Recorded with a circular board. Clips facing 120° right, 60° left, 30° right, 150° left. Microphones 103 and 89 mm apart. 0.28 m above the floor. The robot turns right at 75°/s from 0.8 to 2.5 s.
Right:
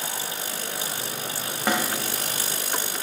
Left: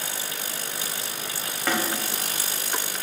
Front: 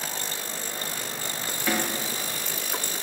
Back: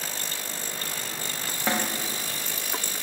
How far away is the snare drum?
About 1.2 m.